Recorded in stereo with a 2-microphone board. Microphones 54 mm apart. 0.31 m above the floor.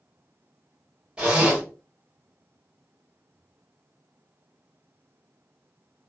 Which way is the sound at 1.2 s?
15° right (ahead or behind).